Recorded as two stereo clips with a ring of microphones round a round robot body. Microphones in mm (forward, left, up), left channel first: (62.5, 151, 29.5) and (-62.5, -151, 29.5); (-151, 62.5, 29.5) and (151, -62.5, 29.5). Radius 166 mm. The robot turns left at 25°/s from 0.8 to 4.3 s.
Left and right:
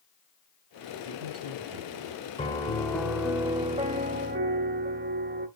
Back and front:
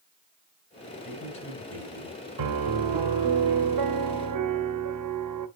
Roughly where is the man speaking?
Behind right.